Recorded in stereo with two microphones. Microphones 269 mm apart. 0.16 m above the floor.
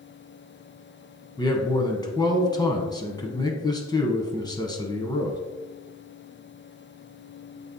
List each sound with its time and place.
1.4 s a man speaking: 15° left (ahead or behind), 1.0 m